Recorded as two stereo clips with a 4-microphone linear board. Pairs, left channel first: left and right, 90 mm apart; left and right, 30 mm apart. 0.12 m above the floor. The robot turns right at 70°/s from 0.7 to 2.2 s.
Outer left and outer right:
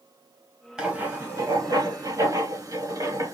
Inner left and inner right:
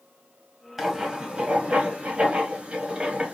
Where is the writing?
5° right (ahead or behind), 1.5 m; by 3.3 s 35° right (ahead or behind), 1.5 m.